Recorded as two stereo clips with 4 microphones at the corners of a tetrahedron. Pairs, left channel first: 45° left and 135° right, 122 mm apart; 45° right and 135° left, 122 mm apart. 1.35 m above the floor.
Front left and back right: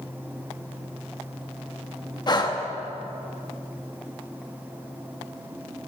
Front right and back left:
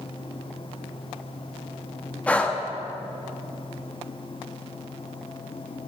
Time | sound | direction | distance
2.3 | breathing | 25° left | 0.8 m